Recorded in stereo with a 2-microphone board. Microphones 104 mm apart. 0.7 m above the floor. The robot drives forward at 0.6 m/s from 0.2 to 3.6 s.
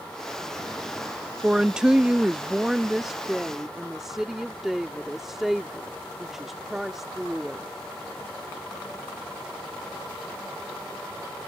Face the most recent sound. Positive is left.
turn(degrees=-5)  # may be behind; listen again after turning